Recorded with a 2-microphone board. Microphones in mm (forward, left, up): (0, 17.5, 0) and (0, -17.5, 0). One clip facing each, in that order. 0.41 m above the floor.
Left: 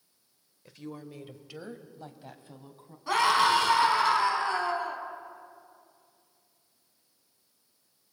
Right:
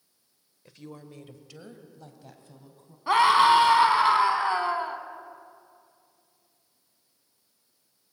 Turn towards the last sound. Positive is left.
turn(degrees=-25)  # may be behind; listen again after turning